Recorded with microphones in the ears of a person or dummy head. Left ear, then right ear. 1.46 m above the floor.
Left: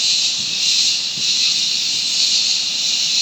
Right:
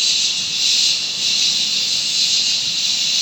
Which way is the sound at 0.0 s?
45° right (ahead or behind).